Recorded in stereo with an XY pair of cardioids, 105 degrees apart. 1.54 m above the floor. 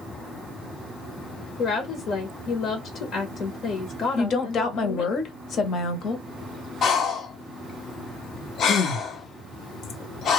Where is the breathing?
65° left, 1.0 m.